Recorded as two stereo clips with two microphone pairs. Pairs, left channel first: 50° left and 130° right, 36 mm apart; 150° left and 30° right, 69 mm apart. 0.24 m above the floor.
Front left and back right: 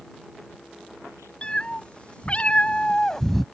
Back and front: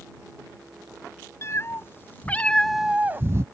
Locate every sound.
1.4 s a cat meowing: 110° left; by 3.5 s 35° right